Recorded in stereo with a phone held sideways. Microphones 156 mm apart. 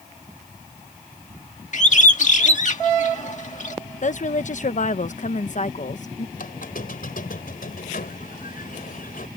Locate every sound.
1.7 s a bird: 55° left (ahead or behind)
4.0 s a woman speaking: 60° left (ahead or behind)
6.4 s a squeak: 75° left (ahead or behind)